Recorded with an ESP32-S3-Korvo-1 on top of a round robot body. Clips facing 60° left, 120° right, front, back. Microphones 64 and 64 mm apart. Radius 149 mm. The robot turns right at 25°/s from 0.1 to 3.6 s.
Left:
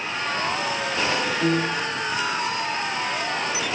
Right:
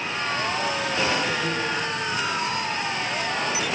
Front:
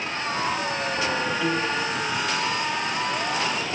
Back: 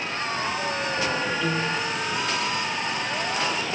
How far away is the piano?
About 1.9 m.